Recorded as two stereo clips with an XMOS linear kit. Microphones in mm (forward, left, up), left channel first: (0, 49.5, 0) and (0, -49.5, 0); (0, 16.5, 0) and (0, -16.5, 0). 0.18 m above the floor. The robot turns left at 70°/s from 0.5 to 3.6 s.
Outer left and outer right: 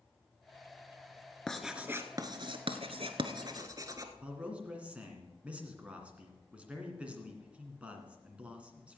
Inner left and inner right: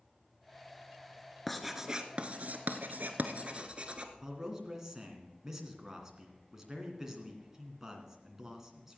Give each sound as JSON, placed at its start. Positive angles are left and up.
{"t": 1.5, "sound": "writing", "side_deg": 10, "distance_m": 1.0}
{"t": 4.2, "sound": "a man speaking", "side_deg": -10, "distance_m": 2.0}